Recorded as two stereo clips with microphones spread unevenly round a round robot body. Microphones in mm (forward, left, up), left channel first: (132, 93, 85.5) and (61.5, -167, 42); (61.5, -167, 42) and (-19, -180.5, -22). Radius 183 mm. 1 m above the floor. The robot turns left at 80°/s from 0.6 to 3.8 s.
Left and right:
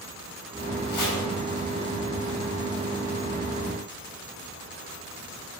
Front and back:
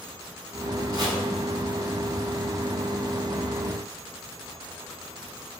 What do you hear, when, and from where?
0.9 s chopping: 105° left, 5.5 m; by 1.2 s 85° left, 5.5 m